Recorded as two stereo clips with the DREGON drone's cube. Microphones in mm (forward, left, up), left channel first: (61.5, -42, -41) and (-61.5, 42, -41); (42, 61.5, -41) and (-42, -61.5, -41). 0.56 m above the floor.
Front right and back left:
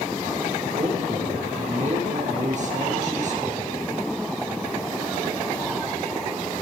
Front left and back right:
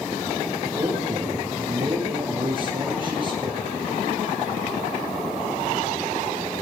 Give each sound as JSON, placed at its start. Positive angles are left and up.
{"t": 0.8, "sound": "a man speaking", "azimuth_deg": 180, "distance_m": 8.5}